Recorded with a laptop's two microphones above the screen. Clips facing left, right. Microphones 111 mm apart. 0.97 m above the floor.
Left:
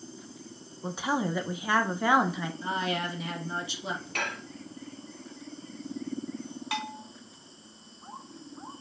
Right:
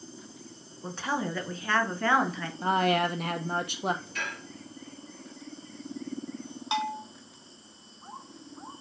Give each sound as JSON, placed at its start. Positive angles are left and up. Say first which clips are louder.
{"t": 0.8, "sound": "a woman speaking", "louder": "left 2 dB", "side_deg": 15, "distance_m": 0.6}
{"t": 2.6, "sound": "a woman speaking", "louder": "right 8 dB", "side_deg": -55, "distance_m": 0.8}
{"t": 4.2, "sound": "dishes clattering", "louder": "left 3 dB", "side_deg": 70, "distance_m": 0.8}
{"t": 6.7, "sound": "a bell", "louder": "right 6 dB", "side_deg": -20, "distance_m": 0.7}